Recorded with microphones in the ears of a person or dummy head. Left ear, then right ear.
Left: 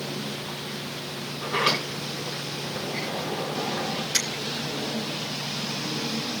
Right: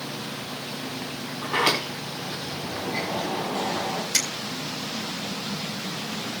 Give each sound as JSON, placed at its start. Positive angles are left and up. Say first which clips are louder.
{"t": 1.4, "sound": "a sliding door", "louder": "right 1 dB", "side_deg": -20, "distance_m": 4.5}
{"t": 4.1, "sound": "a finger snap", "louder": "right 1 dB", "side_deg": -10, "distance_m": 3.0}